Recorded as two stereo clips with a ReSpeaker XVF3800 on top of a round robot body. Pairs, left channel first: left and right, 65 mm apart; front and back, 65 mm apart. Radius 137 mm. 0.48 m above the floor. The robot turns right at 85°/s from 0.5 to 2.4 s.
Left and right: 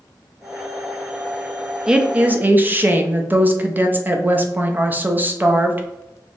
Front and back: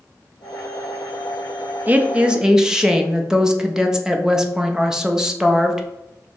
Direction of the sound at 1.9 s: 155° right.